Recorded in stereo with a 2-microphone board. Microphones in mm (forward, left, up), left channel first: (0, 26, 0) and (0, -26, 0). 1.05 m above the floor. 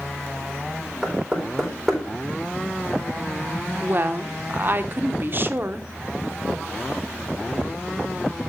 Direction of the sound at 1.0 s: Centre (ahead or behind).